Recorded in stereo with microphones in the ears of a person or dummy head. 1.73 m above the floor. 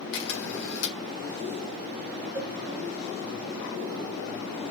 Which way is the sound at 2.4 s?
15° right (ahead or behind).